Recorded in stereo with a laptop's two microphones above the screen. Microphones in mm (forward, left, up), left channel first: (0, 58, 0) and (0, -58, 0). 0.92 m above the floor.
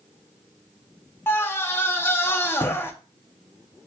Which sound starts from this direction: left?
A scream, at 1.3 s.